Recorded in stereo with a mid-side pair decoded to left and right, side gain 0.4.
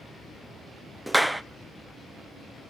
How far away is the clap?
About 0.9 m.